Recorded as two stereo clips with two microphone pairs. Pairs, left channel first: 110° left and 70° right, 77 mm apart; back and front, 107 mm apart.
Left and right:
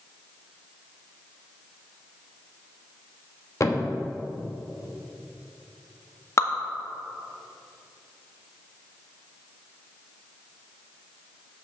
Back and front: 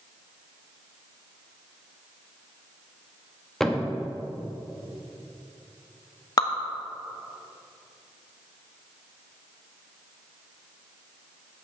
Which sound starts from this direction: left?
A thud, at 3.6 s.